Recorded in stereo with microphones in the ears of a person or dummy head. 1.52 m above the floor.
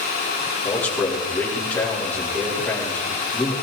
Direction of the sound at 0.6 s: 10° left (ahead or behind).